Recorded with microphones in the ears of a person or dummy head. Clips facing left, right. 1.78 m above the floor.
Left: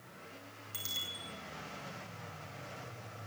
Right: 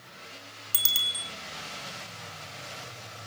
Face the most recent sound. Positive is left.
turn(degrees=-70)  # may be behind; listen again after turning